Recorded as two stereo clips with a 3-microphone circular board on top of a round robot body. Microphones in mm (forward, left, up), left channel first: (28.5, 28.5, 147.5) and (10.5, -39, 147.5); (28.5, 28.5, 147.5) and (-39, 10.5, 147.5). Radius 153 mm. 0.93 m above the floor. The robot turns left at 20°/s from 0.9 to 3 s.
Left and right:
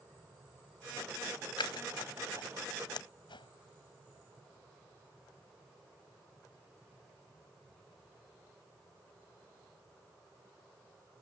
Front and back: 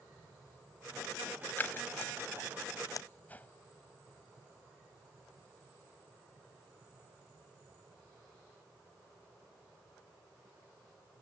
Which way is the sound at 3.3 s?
85° left.